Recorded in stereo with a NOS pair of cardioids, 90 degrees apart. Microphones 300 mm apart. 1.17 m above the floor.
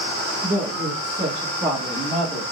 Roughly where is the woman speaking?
Ahead right.